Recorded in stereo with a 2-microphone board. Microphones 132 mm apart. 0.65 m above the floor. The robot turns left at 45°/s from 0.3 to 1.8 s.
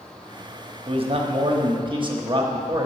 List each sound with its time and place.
0.9 s a man speaking: 75° right, 1.0 m; by 2.9 s 120° right, 1.0 m